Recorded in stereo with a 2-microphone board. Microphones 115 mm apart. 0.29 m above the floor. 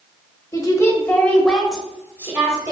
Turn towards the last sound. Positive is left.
turn(degrees=-30)  # may be behind; listen again after turning